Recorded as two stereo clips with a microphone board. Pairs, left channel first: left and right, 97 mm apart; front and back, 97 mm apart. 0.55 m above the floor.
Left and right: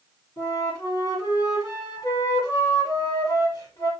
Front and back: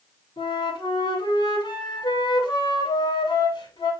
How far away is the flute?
About 7.5 m.